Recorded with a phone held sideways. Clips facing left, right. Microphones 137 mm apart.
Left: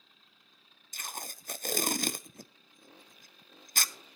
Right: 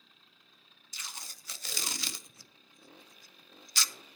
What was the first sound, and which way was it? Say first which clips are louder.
Tape being pulled: left 7 dB; 50° left (ahead or behind).